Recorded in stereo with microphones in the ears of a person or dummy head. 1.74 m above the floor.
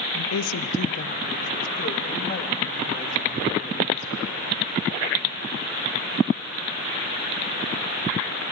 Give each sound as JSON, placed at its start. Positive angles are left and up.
{"t": 0.1, "sound": "a woman speaking", "side_deg": 65, "distance_m": 0.9}